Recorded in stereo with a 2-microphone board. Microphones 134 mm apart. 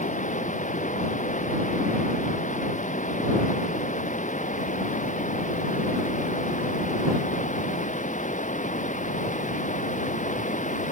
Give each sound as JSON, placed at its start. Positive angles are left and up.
{"t": 0.0, "sound": "running water", "side_deg": 70}